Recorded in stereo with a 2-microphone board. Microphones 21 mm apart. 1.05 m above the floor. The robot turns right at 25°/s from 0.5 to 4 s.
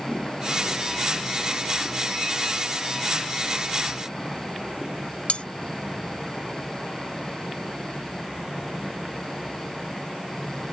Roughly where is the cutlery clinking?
Left.